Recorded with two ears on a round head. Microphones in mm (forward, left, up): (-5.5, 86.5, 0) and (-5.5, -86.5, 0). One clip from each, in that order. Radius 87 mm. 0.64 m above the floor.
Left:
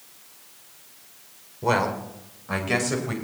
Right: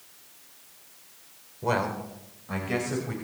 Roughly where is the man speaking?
Centre.